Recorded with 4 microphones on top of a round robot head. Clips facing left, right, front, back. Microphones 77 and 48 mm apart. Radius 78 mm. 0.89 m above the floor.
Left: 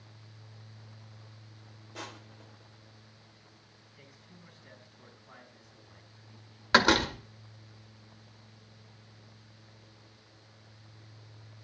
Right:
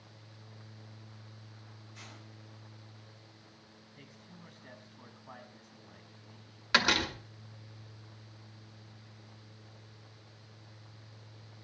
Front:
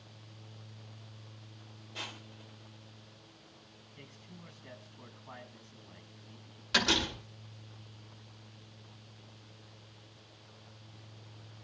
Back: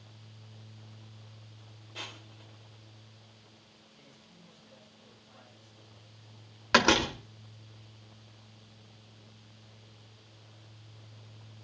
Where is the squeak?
No squeak in this recording.